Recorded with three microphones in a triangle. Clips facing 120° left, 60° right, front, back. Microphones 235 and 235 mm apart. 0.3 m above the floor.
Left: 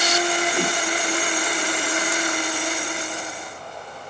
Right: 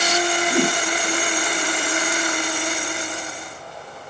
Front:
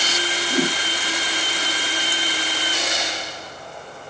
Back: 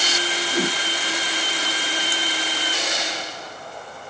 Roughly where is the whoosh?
Ahead right.